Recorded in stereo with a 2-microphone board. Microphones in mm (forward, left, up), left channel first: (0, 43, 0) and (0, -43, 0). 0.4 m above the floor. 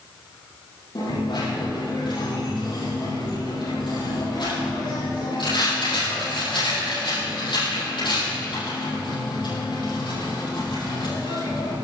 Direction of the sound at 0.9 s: 65° left (ahead or behind).